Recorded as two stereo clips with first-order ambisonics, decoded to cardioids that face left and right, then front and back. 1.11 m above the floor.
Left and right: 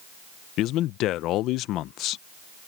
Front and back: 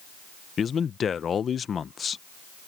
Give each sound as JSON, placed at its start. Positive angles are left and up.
{"t": 0.6, "sound": "a man speaking", "azimuth_deg": 60}